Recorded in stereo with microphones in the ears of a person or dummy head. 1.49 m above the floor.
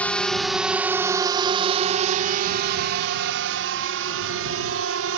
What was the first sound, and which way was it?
A drone, 10° left (ahead or behind).